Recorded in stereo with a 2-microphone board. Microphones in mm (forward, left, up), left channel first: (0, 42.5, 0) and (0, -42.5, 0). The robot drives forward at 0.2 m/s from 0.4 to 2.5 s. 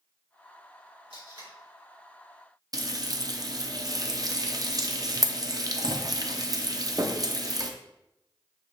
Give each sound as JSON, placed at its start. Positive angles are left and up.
{"t": 1.1, "sound": "tape being pulled", "side_deg": -75, "distance_m": 2.5}
{"t": 2.7, "sound": "frying", "side_deg": -45, "distance_m": 0.5}